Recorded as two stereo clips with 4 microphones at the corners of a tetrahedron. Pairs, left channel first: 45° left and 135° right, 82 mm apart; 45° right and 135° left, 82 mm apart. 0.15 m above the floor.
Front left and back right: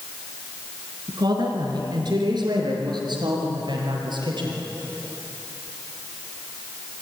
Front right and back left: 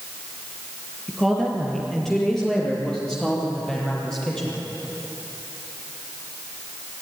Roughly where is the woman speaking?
Behind right.